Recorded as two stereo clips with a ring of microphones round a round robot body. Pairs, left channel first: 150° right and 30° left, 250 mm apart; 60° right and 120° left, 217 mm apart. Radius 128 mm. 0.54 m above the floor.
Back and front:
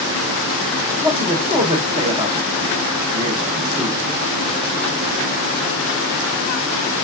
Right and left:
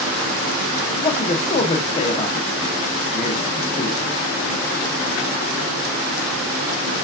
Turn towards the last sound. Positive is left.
turn(degrees=-25)